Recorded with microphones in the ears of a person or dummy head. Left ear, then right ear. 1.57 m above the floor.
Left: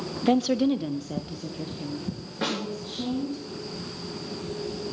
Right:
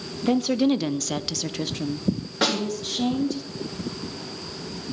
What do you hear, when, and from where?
0.2 s a woman speaking: 20° left (ahead or behind), 0.7 m; by 3.4 s 85° right, 2.5 m
2.4 s a snare drum: 35° right (ahead or behind), 5 m